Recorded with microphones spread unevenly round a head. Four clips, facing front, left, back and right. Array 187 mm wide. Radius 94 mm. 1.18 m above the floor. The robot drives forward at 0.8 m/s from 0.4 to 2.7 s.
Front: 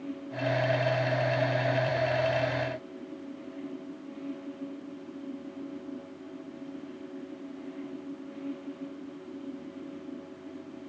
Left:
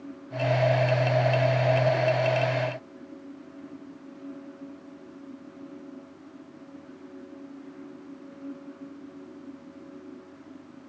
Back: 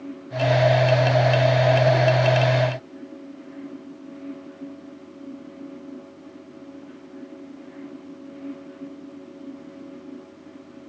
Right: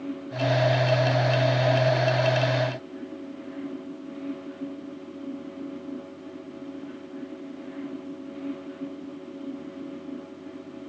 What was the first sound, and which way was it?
Only background noise.